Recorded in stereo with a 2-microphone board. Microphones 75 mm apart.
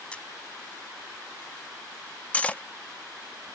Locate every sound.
0.1 s a camera shutter: 15° left (ahead or behind)
2.3 s cutlery clinking: 20° left (ahead or behind)